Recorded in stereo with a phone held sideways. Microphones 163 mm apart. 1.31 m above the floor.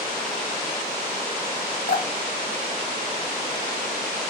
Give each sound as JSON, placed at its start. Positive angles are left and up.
{"t": 1.9, "sound": "dripping", "side_deg": 80, "distance_m": 3.5}